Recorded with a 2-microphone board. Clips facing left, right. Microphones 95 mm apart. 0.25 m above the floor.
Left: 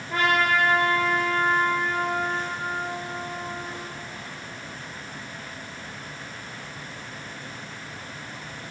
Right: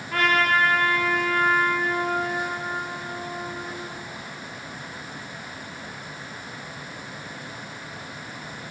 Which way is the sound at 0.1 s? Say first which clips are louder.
Right 1 dB; 20° left (ahead or behind).